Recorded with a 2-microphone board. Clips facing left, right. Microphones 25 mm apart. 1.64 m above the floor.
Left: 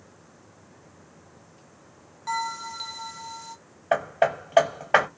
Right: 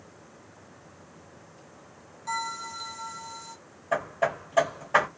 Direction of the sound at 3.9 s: 50° left (ahead or behind).